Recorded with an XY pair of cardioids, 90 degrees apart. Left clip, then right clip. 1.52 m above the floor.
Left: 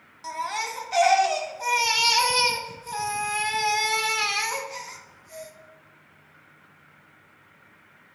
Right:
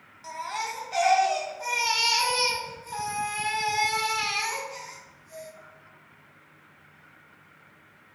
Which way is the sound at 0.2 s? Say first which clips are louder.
Left 3 dB; 35° left.